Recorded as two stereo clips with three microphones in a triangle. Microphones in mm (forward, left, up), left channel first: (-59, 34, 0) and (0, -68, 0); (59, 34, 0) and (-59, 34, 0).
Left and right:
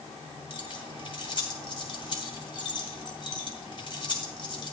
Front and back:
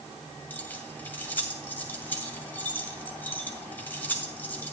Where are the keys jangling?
75° left, 2.5 m.